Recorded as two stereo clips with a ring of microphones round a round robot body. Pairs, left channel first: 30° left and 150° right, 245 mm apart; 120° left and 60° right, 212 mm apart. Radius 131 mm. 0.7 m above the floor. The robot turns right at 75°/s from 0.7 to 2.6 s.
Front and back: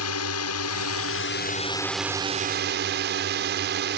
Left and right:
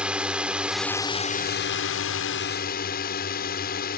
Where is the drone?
25° left; by 4.0 s 165° left.